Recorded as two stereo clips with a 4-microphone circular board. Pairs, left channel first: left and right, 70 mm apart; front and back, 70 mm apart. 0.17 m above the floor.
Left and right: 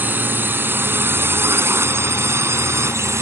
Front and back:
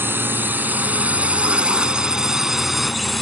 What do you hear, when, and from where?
0.0 s a drone: 140° right; by 3.2 s 90° right